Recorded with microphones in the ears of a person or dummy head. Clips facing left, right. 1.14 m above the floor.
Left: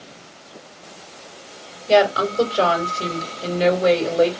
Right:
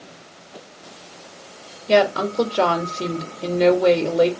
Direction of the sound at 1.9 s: 25° right (ahead or behind).